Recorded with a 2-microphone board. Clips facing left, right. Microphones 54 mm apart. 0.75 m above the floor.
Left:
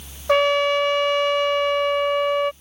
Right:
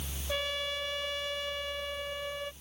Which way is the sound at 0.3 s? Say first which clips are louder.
Left 18 dB; 80° left.